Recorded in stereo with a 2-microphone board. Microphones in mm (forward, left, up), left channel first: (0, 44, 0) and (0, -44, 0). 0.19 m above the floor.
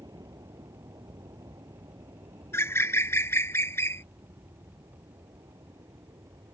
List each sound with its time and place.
0.0 s an aircraft: 50° right (ahead or behind); by 6.5 s 55° right (ahead or behind)
2.5 s a bird: 30° left (ahead or behind)